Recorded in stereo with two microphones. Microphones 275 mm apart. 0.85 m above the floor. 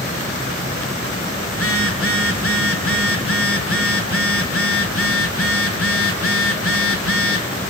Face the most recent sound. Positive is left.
turn(degrees=55)  # may be behind; listen again after turning